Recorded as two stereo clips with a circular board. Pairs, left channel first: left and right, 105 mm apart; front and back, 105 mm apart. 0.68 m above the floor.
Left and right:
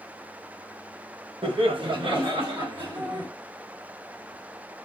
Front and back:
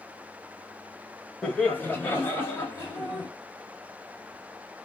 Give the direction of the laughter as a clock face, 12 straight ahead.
3 o'clock.